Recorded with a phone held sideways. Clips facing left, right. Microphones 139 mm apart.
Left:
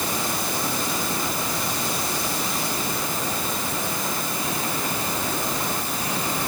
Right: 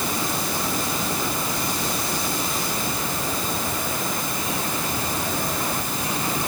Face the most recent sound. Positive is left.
No sound to turn to.